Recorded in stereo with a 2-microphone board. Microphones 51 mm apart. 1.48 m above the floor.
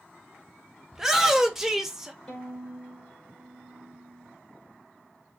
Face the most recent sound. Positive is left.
turn(degrees=10)  # may be behind; listen again after turning